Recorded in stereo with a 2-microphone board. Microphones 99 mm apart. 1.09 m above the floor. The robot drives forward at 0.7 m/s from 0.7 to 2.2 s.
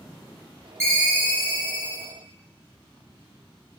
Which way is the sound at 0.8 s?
30° right (ahead or behind).